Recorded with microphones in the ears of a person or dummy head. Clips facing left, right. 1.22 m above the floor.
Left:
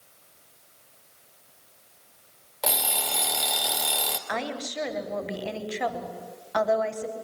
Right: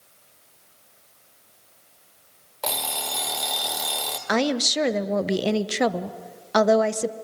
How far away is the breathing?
No breathing in this recording.